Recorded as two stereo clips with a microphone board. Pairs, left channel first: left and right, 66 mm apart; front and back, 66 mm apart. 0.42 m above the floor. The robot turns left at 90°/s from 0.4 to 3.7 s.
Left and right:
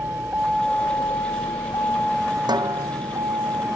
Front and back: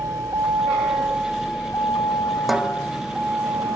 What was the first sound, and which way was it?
A vehicle, 145° right.